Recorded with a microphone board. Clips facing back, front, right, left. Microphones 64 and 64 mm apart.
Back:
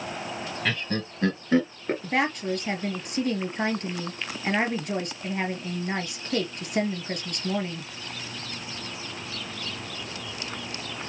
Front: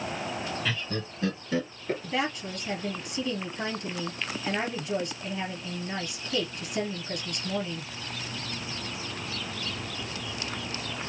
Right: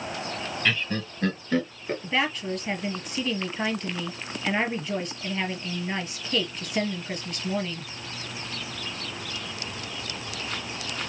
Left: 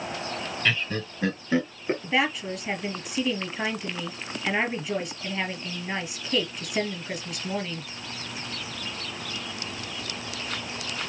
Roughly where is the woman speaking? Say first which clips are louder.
Back 7 dB, even; behind.